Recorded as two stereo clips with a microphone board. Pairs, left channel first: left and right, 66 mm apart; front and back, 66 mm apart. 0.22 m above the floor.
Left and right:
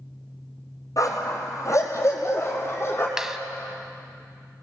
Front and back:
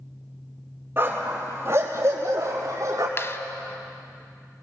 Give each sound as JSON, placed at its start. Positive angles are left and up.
{"t": 1.0, "sound": "a dog barking", "azimuth_deg": 125, "distance_m": 3.0}
{"t": 3.2, "sound": "a clap", "azimuth_deg": -10, "distance_m": 0.9}